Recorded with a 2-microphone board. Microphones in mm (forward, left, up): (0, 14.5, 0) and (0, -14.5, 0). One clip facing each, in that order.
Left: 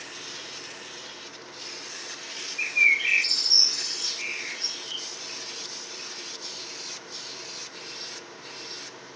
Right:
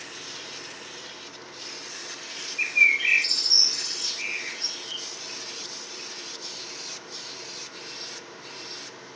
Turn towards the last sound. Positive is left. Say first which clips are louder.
# right 1 dB
turn(degrees=15)  # may be behind; listen again after turning